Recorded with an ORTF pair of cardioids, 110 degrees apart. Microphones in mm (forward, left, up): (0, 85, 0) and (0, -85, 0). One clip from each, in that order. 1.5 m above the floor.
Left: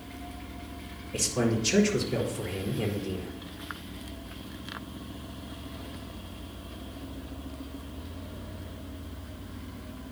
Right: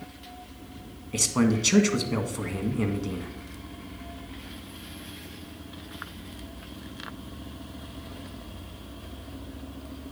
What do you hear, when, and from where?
1.1 s a man speaking: 70° right, 1.8 m